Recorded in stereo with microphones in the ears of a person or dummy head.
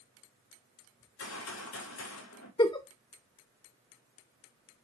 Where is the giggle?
20° left (ahead or behind), 0.9 m.